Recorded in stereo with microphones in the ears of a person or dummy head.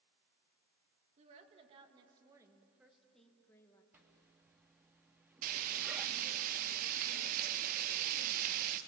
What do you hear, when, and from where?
1.2 s a woman speaking: 40° right (ahead or behind), 2.5 m; by 3.8 s 20° left (ahead or behind), 1.9 m
3.9 s a zipper: 10° right (ahead or behind), 1.0 m
5.4 s frying: 50° right (ahead or behind), 1.4 m